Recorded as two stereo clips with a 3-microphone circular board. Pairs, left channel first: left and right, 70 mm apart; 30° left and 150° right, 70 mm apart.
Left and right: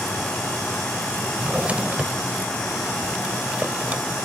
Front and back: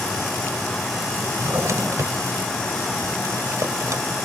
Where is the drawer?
155° right.